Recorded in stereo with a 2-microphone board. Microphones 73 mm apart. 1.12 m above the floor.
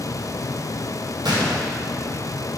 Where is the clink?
I don't hear a clink.